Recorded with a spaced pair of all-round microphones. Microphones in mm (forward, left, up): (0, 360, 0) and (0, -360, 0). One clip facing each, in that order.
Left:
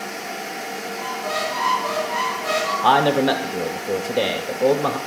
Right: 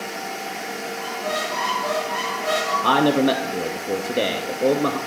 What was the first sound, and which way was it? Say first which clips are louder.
A squeak: even; 20° right (ahead or behind).